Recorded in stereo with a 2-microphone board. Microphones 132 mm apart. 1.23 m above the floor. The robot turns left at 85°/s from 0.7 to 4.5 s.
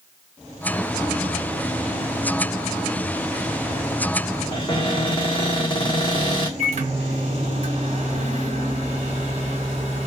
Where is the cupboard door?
35° left (ahead or behind), 0.9 m.